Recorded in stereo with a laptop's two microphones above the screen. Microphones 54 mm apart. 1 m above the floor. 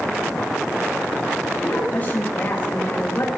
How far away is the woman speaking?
About 5.5 m.